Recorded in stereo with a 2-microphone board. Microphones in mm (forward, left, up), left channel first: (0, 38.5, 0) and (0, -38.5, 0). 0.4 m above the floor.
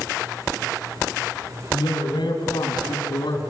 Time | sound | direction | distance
1.7 | a man speaking | 75° left (ahead or behind) | 4 m